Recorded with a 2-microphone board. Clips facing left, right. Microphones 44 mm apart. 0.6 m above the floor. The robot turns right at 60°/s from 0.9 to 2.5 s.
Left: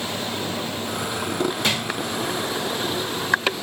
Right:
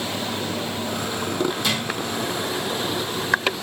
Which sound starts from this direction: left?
A drawer, at 1.6 s.